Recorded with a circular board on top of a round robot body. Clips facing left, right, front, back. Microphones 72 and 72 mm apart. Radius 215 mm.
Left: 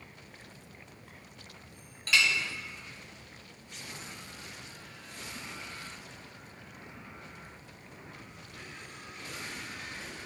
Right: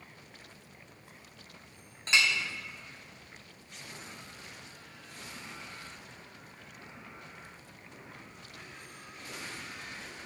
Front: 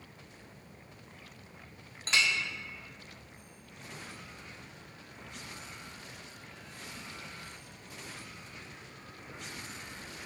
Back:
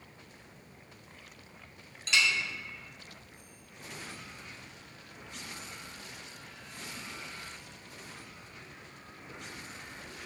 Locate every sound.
2.1 s a clink: 30° right, 0.6 m